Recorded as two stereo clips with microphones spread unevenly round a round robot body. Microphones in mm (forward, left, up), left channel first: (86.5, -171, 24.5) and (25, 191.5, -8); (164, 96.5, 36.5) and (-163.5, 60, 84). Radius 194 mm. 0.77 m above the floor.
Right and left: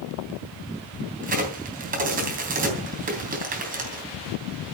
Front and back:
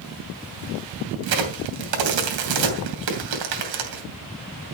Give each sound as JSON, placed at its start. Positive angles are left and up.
{"t": 1.2, "sound": "a crack", "azimuth_deg": 170, "distance_m": 3.0}